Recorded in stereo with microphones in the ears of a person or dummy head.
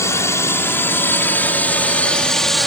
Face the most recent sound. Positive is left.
turn(degrees=0)  # may be behind; listen again after turning